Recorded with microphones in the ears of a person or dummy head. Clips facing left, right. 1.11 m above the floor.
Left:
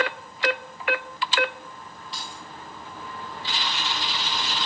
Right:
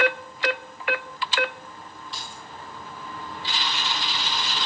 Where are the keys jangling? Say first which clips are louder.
Left 2 dB; centre (ahead or behind), 3.5 m.